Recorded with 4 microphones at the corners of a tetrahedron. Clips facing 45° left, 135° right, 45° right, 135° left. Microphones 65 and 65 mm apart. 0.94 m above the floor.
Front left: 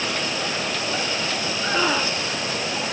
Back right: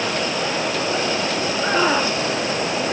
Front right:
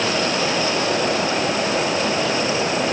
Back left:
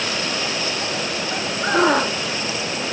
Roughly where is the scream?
Behind left.